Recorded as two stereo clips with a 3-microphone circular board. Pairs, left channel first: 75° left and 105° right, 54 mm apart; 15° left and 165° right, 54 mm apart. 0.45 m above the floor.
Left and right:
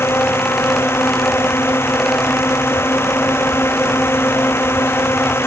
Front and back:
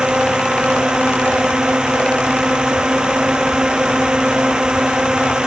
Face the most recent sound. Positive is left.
turn(degrees=120)